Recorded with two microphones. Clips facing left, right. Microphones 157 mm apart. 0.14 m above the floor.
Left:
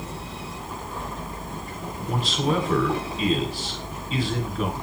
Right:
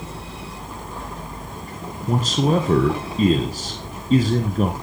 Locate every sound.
2.1 s a man speaking: 45° right (ahead or behind), 1.6 m